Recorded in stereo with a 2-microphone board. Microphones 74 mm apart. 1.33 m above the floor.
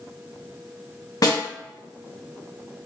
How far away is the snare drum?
About 1.0 m.